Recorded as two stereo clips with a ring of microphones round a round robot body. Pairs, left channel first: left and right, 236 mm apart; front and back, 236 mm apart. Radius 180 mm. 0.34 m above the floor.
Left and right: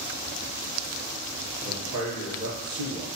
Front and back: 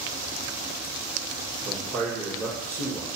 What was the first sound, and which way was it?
A man speaking, 120° right.